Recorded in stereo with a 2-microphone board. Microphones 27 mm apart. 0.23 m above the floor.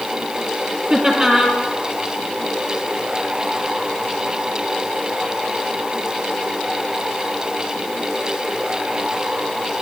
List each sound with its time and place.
0.9 s laughter: 25° right (ahead or behind), 5 m